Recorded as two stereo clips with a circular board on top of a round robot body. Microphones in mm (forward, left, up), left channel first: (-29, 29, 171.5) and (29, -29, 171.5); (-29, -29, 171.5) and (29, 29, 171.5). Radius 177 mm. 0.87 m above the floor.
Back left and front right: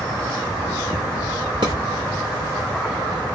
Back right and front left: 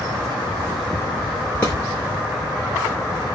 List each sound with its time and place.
1.6 s a drawer: 65° right, 0.6 m